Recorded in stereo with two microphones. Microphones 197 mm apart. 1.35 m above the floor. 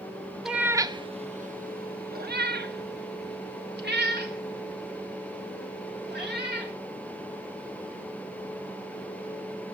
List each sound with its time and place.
0.5 s a cat meowing: centre (ahead or behind), 0.7 m; by 6.7 s 60° right (ahead or behind), 3.5 m